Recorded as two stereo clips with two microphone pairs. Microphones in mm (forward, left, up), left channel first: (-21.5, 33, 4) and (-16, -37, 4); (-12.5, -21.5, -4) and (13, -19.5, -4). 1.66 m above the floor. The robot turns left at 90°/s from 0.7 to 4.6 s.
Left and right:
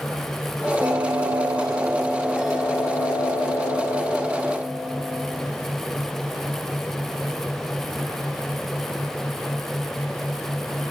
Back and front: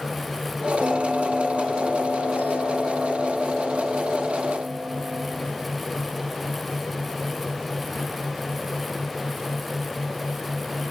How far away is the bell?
About 1.1 m.